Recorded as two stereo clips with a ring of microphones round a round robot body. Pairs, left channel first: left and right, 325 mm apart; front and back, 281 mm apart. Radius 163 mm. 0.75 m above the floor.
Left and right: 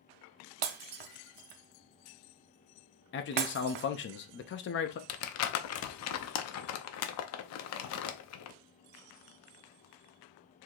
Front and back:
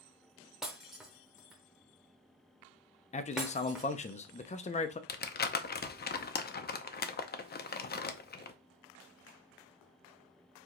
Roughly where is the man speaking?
Ahead left.